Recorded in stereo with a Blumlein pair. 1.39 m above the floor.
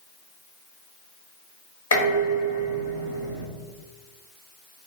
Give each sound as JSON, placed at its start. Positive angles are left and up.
{"t": 1.9, "sound": "dishes clattering", "azimuth_deg": 70, "distance_m": 1.1}